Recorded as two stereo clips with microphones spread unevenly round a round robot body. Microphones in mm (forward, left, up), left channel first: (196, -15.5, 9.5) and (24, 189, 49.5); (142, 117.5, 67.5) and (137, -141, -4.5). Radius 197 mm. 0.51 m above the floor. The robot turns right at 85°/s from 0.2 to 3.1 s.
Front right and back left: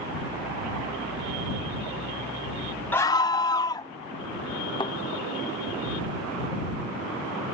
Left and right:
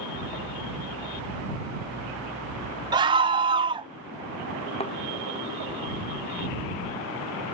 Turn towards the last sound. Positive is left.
turn(degrees=25)